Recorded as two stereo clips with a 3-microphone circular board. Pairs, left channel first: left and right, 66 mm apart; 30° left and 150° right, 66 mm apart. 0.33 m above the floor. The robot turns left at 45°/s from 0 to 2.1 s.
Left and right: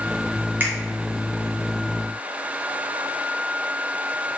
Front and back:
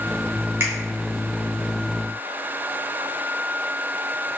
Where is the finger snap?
130° right, 1.6 m; by 0.7 s 135° right, 1.6 m.